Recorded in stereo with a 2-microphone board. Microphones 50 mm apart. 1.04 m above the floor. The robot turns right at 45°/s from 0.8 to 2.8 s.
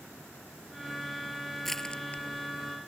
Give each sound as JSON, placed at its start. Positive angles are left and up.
{"t": 1.6, "sound": "crushing", "side_deg": 0}